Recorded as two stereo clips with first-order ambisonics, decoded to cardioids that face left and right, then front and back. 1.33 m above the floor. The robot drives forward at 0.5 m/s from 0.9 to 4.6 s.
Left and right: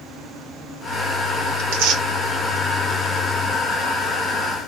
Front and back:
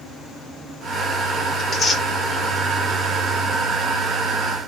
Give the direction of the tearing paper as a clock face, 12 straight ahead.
2 o'clock.